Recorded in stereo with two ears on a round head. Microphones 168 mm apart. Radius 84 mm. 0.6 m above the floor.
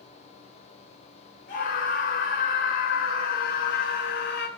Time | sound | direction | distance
1.5 | a scream | 60° left (ahead or behind) | 3 m